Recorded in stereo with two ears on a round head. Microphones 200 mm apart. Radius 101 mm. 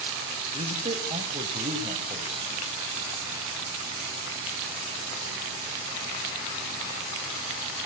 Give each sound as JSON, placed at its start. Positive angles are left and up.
{"t": 0.5, "sound": "a man speaking", "side_deg": -25, "distance_m": 2.5}